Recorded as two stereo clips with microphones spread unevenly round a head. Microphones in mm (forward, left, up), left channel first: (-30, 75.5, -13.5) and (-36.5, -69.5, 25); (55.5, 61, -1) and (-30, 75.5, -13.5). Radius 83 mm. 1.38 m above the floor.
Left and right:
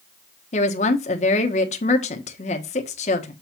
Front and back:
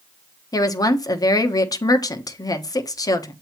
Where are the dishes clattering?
I don't hear dishes clattering.